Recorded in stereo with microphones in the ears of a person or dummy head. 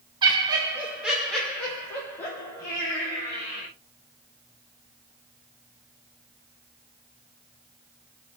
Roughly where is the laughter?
Right.